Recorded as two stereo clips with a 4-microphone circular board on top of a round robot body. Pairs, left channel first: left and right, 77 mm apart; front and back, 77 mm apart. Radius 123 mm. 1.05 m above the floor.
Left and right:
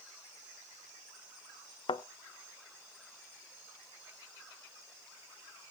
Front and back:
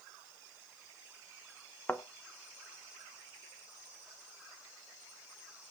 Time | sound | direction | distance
1.9 | a thud | 75° left | 0.7 m